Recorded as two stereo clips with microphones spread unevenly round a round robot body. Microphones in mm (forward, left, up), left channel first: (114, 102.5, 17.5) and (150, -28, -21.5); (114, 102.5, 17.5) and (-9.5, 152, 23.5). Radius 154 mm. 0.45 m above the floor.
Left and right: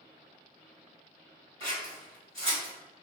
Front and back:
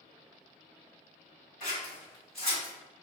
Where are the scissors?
110° right, 1.7 m.